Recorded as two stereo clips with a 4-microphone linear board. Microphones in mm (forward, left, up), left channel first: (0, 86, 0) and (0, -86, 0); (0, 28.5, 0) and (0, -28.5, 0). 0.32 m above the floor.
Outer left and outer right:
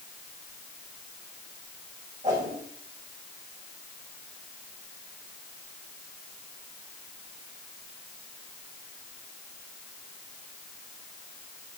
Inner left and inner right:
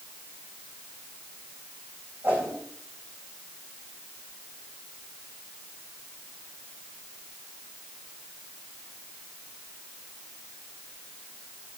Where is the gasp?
I don't hear a gasp.